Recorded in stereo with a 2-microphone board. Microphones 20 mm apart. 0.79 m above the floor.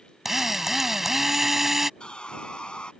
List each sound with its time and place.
0.2 s a drill: 20° right (ahead or behind)
2.0 s sawing: 55° left (ahead or behind)